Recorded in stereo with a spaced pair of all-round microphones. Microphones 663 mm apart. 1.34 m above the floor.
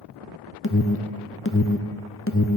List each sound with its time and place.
0.6 s an alarm: 20° left (ahead or behind), 0.5 m